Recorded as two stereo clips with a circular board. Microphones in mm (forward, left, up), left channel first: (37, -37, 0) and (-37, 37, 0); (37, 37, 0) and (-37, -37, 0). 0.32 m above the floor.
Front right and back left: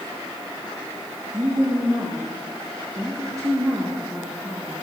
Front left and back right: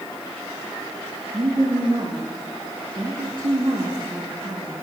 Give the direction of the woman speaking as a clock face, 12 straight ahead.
6 o'clock.